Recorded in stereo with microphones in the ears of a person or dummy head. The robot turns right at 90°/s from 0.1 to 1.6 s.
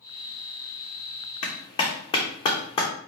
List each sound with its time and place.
1.4 s a clap: 40° left (ahead or behind), 0.9 m; by 2.9 s 30° left (ahead or behind), 0.9 m